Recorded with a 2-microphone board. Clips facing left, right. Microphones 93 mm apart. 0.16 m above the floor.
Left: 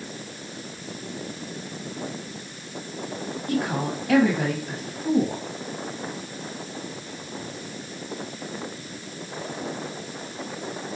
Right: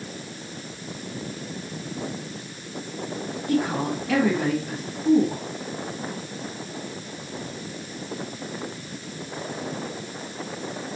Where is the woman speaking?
50° left (ahead or behind), 4 m.